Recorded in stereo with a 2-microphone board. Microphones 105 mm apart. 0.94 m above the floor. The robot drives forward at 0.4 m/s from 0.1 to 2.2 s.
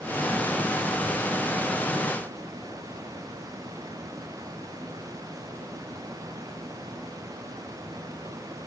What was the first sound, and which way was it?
Only background noise.